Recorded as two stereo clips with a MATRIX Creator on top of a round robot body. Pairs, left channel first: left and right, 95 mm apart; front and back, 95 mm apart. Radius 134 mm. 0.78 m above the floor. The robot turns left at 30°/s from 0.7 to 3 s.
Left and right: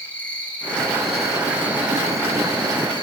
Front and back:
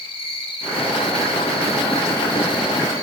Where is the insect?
15° left, 4 m; by 3.0 s 55° right, 4 m.